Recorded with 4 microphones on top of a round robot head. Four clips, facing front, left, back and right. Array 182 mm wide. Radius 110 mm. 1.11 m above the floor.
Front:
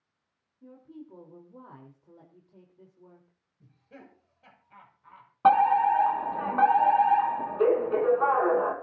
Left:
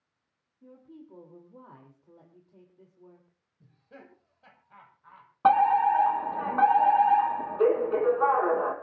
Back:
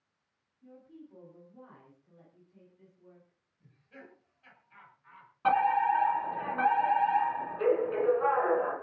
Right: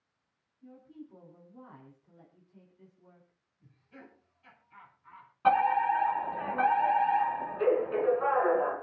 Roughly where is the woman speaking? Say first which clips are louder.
Even, front 5 dB; ahead left.